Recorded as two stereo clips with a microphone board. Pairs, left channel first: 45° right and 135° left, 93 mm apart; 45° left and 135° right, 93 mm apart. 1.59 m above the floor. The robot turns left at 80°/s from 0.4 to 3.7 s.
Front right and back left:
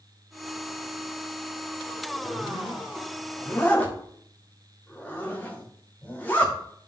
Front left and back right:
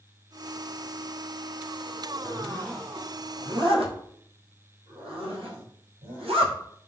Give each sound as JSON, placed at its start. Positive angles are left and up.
{"t": 2.2, "sound": "a zipper", "azimuth_deg": 0, "distance_m": 1.9}